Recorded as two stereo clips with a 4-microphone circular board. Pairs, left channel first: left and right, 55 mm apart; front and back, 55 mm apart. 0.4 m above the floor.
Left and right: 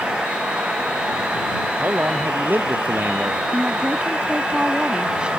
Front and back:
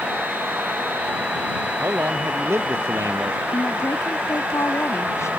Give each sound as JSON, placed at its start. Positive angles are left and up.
{"t": 1.8, "sound": "a man speaking", "azimuth_deg": -140}
{"t": 3.5, "sound": "a woman speaking", "azimuth_deg": -20}